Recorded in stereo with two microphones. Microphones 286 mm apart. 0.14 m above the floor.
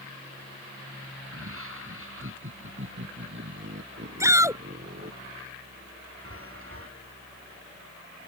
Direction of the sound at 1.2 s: 50° right (ahead or behind).